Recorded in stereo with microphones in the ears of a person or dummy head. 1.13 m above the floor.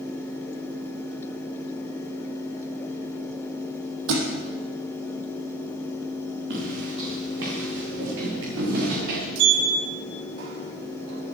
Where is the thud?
75° right (ahead or behind), 4.5 m.